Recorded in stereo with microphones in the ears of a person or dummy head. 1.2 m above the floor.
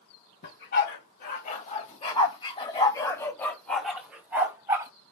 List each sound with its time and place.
0.4 s a dog barking: 60° left (ahead or behind), 2 m; by 4.9 s 15° right (ahead or behind), 2.0 m